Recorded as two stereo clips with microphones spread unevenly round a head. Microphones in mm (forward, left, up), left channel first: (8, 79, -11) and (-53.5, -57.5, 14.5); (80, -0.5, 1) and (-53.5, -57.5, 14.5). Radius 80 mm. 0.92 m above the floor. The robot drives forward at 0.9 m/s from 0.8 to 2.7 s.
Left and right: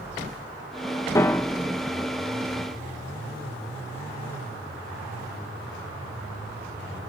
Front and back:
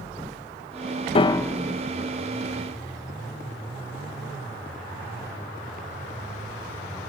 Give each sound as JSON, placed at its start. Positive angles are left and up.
{"t": 1.1, "sound": "a piano", "azimuth_deg": 15, "distance_m": 0.6}